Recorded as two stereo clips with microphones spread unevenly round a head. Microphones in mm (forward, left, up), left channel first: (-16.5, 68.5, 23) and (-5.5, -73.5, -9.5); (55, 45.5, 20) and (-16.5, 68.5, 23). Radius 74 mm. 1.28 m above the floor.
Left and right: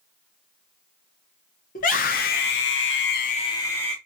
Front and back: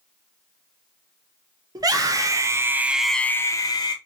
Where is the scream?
125° left, 1.5 m; by 4.0 s 10° left, 0.9 m.